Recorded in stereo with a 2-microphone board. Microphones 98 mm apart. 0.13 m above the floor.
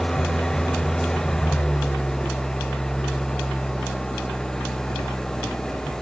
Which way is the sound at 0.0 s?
5° left (ahead or behind).